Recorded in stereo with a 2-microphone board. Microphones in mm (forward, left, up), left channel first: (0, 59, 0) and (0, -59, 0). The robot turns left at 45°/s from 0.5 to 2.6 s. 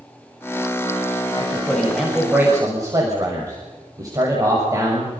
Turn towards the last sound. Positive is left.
turn(degrees=-30)